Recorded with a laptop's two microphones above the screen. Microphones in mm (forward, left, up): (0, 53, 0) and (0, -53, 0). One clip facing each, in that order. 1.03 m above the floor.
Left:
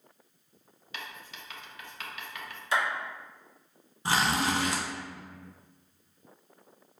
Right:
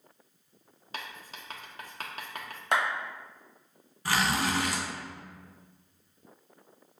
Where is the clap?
55° right (ahead or behind), 1.2 m.